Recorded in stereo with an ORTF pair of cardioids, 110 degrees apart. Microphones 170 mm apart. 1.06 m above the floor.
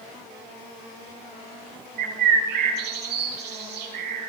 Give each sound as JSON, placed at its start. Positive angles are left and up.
{"t": 2.0, "sound": "a bird", "azimuth_deg": -65, "distance_m": 5.0}